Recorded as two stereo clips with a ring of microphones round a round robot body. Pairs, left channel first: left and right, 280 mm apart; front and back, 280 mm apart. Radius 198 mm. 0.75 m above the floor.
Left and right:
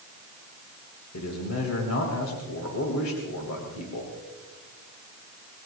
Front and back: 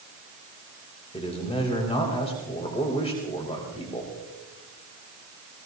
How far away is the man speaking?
About 3 m.